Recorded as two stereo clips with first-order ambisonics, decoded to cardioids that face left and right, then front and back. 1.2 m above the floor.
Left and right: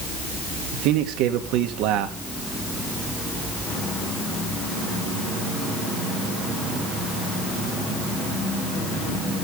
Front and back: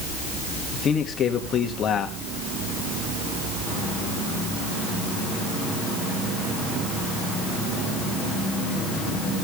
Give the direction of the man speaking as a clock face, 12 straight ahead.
2 o'clock.